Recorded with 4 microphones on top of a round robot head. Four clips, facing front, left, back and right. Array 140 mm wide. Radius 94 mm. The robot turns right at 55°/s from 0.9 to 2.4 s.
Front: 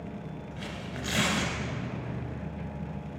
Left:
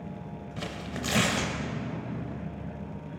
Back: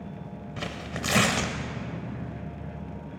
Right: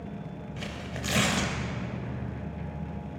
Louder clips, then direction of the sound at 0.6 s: Left 3 dB, back 5 dB; 165° left.